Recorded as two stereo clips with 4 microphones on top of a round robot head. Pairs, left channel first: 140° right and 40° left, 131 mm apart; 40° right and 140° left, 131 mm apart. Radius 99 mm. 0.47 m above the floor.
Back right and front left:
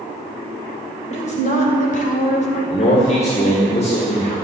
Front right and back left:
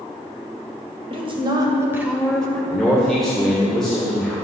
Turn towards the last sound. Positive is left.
turn(degrees=-125)